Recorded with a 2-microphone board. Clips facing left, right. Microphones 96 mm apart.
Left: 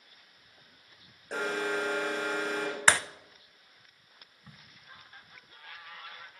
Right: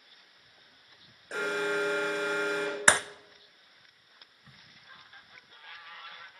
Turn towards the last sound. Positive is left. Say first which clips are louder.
# left 4 dB
turn(degrees=15)  # may be behind; listen again after turning